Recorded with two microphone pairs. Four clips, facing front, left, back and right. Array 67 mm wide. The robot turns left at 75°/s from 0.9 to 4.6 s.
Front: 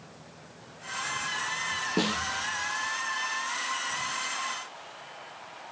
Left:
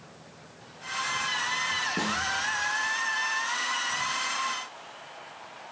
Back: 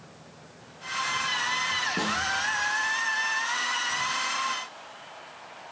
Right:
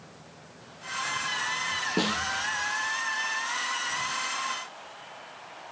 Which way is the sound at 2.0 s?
45° right.